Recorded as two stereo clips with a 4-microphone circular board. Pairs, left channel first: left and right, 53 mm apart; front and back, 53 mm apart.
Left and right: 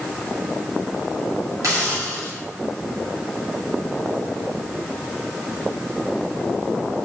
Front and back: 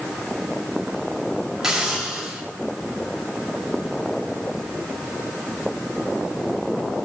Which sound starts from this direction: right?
A hiss, at 1.6 s.